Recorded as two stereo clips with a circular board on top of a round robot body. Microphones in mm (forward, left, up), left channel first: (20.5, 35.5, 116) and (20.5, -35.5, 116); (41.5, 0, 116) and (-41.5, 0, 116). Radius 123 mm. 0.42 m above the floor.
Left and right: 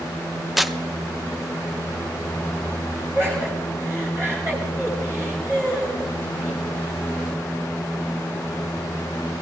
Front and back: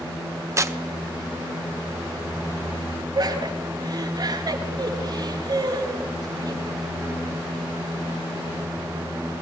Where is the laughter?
145° right, 5.5 m.